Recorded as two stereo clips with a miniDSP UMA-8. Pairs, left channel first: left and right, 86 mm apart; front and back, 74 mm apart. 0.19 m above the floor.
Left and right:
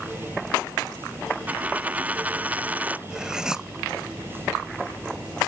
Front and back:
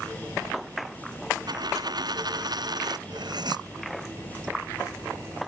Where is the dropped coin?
160° right.